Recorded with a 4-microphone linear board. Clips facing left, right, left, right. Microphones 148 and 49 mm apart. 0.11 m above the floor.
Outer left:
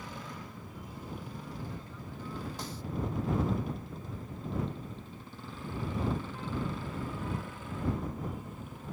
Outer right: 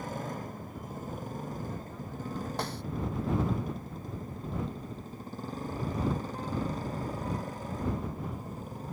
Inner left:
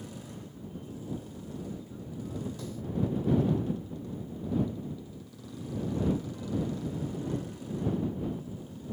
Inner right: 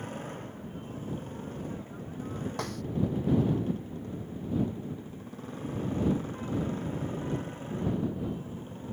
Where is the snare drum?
70° right (ahead or behind).